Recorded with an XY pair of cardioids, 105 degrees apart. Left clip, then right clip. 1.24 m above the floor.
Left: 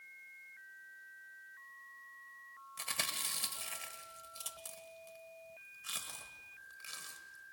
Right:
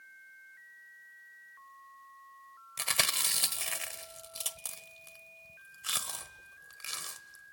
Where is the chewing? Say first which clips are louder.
Right 8 dB; 70° right, 1.4 m.